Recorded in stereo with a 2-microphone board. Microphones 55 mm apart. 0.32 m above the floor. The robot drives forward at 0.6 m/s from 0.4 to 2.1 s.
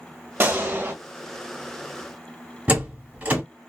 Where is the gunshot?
35° right (ahead or behind), 1.1 m; by 0.9 s 40° right (ahead or behind), 1.0 m.